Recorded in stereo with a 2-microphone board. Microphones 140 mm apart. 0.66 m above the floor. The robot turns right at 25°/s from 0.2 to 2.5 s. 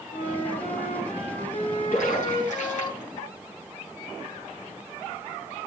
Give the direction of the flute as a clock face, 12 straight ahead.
9 o'clock.